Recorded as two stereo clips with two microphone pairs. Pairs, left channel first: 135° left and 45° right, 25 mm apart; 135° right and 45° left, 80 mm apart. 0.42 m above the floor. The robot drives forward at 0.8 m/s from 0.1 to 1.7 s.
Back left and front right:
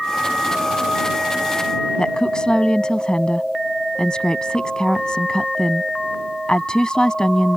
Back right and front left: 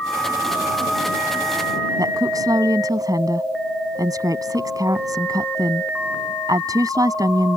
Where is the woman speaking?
80° left.